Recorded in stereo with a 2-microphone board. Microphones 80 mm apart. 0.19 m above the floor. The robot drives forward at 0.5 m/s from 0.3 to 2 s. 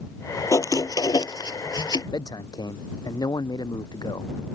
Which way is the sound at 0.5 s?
50° left (ahead or behind).